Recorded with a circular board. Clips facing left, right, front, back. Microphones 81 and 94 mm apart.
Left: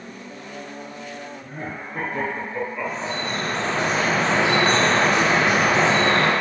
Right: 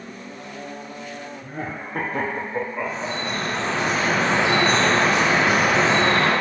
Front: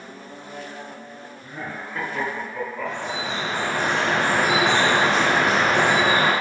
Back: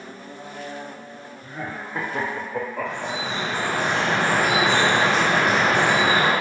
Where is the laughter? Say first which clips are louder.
Right 3 dB, back 1 dB; 90° right, 0.7 m; by 3.9 s 160° left, 0.8 m.